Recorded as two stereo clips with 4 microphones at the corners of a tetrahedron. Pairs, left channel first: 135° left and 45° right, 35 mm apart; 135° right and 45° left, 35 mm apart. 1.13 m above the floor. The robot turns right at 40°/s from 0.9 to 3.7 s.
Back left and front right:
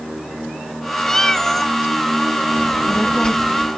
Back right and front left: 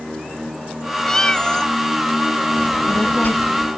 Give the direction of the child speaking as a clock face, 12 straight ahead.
6 o'clock.